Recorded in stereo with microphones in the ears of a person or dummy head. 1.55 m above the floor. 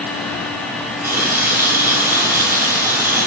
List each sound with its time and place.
1.0 s a running tap: 15° right (ahead or behind), 2.5 m